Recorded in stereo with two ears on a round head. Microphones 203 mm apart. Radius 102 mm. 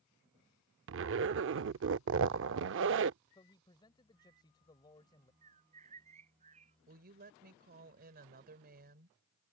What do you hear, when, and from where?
0.9 s a zipper: 55° right (ahead or behind)
3.4 s a man speaking: 20° left (ahead or behind)
5.4 s a bird: 30° right (ahead or behind)
6.9 s a woman speaking: 40° right (ahead or behind)